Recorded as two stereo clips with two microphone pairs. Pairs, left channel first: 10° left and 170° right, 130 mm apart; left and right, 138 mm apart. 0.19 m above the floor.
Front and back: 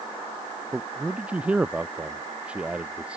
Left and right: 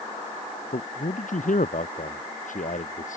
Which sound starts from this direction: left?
A man speaking, at 0.7 s.